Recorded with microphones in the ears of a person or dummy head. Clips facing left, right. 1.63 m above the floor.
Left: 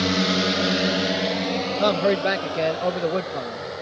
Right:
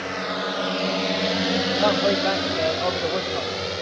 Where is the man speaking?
25° left (ahead or behind).